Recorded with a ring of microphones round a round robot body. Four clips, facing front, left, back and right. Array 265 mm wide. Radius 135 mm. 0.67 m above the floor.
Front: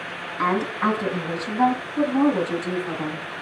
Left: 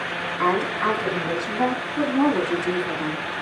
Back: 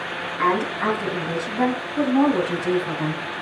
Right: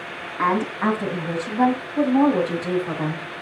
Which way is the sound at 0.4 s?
100° right.